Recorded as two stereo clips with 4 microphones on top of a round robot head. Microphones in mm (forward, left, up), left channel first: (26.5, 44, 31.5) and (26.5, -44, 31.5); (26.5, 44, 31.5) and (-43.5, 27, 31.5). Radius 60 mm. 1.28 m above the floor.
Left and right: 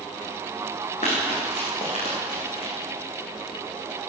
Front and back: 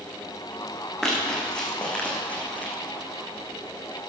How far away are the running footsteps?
About 4.5 m.